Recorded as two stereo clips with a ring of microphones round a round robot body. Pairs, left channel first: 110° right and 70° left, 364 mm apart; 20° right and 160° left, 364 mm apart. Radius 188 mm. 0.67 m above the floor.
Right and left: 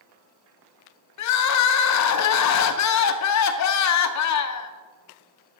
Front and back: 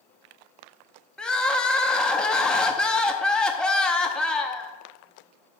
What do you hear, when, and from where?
1.2 s crying: 110° right, 0.6 m